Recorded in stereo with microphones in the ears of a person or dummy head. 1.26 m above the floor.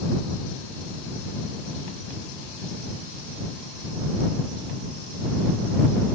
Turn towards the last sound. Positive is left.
No sound to turn to.